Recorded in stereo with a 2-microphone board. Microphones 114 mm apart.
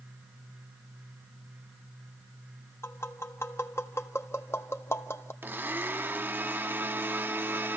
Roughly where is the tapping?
Left.